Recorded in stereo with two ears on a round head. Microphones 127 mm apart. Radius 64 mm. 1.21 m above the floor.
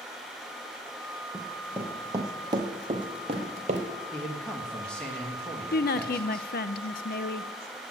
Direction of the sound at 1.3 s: 5° right (ahead or behind).